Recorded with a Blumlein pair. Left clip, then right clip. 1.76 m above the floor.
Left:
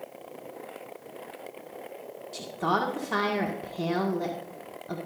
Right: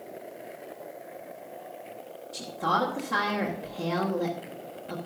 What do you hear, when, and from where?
2.3 s a woman speaking: 15° left, 1.9 m